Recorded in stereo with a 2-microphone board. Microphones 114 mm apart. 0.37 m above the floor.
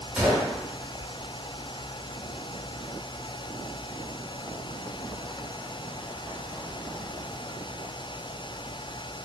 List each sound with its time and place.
0.2 s a gunshot: 5° right (ahead or behind), 0.9 m